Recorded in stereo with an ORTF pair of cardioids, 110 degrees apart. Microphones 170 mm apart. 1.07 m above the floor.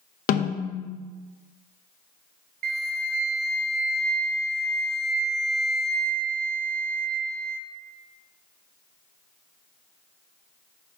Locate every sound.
0.3 s a snare drum: 55° left, 0.8 m
2.6 s a flute: 55° right, 0.6 m